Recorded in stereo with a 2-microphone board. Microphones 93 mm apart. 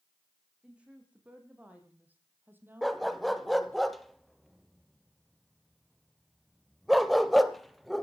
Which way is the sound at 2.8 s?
Centre (ahead or behind).